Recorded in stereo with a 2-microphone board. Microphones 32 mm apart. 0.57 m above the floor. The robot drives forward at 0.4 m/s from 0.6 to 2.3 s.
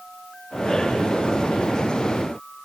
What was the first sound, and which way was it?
Only background noise.